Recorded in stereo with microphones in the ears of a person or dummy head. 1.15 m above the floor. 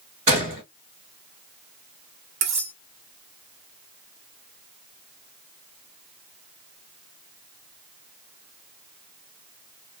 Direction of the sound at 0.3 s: 40° right (ahead or behind).